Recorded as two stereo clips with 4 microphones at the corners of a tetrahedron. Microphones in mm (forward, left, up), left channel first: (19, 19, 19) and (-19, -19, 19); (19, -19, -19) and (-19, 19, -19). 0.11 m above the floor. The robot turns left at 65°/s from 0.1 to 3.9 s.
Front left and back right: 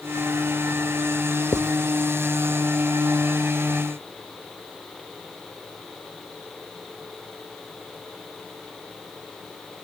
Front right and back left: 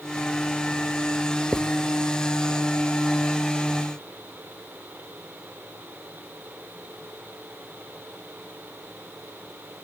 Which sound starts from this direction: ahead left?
Writing, at 1.5 s.